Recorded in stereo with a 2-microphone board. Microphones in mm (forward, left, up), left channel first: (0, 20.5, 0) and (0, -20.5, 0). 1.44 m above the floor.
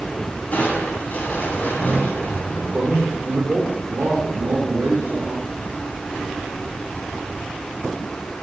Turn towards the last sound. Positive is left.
turn(degrees=-55)  # may be behind; listen again after turning